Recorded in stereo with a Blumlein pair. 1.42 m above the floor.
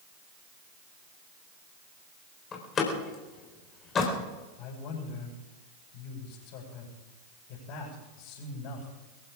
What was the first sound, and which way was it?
A door slam, 25° left.